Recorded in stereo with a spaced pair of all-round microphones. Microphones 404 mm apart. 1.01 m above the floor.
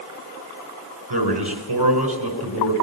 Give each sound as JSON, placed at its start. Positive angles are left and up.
{"t": 1.1, "sound": "a man speaking", "side_deg": -70, "distance_m": 4.5}